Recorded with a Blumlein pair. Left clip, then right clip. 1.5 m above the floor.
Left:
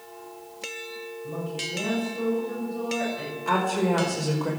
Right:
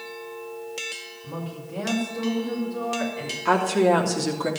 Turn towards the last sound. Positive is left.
turn(degrees=-45)